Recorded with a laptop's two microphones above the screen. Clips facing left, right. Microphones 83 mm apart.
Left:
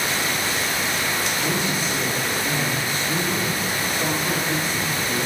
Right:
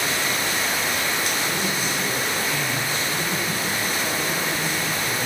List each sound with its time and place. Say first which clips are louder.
1.4 s a man speaking: left 1 dB; 55° left (ahead or behind), 6.5 m